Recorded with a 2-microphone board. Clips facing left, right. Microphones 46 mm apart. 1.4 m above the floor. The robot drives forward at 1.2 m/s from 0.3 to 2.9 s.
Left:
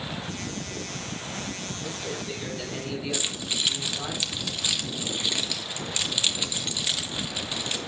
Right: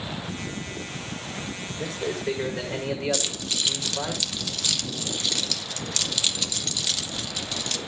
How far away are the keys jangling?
About 1.3 m.